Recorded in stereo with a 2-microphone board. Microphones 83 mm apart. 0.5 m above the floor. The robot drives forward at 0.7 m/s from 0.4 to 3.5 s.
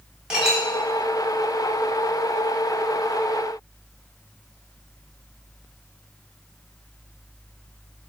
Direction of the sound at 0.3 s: 10° right (ahead or behind).